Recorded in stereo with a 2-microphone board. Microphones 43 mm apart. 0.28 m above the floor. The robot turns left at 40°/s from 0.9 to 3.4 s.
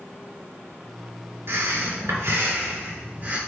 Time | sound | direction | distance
1.5 | breathing | 65° right | 4 m